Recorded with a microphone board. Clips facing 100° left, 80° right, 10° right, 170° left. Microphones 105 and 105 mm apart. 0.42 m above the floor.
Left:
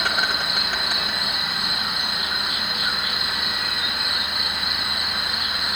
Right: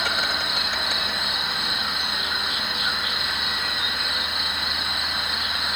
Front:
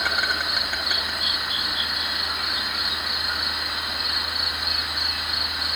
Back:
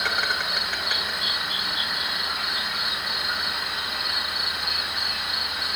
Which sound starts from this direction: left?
An insect, at 0.0 s.